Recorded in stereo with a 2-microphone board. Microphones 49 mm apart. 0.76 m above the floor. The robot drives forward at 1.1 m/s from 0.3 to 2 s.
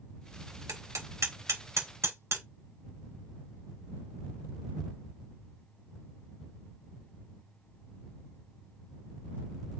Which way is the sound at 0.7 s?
80° right.